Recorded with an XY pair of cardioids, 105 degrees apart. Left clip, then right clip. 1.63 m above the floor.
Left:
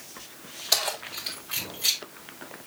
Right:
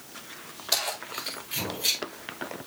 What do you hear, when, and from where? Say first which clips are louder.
0.7 s keys jangling: left 2 dB; 20° left, 4.5 m; by 2.0 s 10° left, 4 m